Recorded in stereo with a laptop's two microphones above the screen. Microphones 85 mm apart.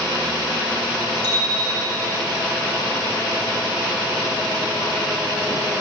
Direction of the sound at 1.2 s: 55° right (ahead or behind).